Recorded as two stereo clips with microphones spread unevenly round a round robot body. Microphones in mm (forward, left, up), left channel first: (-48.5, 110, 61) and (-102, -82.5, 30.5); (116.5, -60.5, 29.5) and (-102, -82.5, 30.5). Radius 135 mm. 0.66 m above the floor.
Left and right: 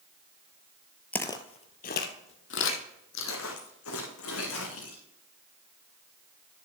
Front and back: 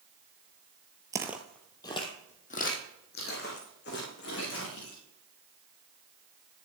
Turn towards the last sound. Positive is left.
turn(degrees=55)